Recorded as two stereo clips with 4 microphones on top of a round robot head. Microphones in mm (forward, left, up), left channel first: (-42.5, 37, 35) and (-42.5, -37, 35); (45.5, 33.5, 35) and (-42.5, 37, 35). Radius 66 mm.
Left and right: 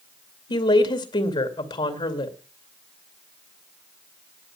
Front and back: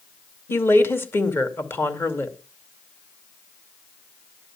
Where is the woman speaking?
65° left, 2.5 m.